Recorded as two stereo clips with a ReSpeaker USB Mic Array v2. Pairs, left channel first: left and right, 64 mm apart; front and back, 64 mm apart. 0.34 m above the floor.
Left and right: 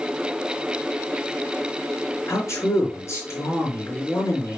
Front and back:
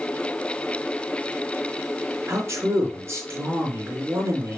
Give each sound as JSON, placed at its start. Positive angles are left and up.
{"t": 2.3, "sound": "a man speaking", "azimuth_deg": 135, "distance_m": 4.0}